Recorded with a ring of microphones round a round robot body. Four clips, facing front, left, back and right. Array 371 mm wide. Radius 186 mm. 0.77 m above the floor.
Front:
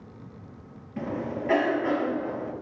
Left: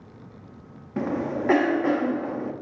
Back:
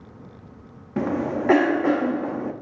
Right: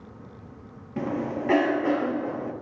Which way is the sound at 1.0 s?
160° left.